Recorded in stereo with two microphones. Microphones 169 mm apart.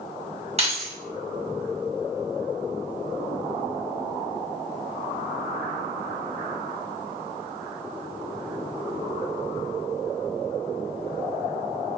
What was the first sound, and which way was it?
Keys jangling, 40° right (ahead or behind).